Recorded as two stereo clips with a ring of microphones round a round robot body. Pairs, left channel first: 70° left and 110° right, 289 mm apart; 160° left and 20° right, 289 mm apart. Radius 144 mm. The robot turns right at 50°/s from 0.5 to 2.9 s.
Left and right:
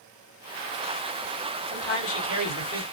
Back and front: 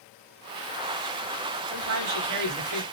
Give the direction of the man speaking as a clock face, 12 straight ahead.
12 o'clock.